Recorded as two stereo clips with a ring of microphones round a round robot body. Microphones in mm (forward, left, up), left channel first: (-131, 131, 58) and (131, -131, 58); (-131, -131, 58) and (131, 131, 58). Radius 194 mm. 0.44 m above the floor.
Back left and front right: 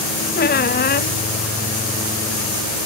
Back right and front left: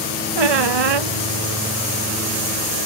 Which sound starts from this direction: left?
A squeak, at 0.3 s.